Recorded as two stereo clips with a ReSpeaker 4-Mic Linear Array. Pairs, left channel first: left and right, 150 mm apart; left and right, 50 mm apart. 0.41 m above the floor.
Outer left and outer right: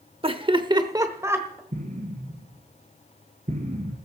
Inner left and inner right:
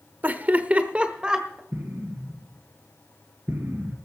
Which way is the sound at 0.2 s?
35° right (ahead or behind).